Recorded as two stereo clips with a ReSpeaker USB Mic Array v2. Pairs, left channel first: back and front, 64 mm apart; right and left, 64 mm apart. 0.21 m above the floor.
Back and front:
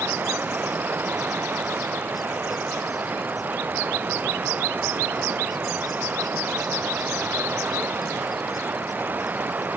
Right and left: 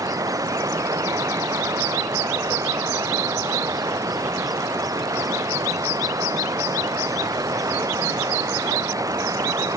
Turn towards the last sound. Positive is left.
turn(degrees=60)